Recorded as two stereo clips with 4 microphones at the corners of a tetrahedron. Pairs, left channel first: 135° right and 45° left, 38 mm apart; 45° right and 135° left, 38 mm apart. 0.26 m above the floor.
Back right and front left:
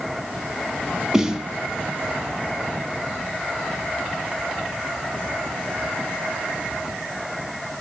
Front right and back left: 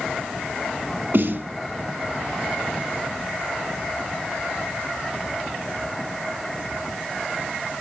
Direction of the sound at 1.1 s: 120° left.